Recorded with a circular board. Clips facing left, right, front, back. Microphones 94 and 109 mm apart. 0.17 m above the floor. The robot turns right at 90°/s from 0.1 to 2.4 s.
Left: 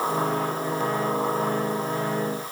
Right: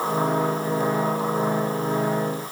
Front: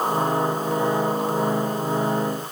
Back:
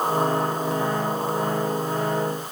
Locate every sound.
Only background noise.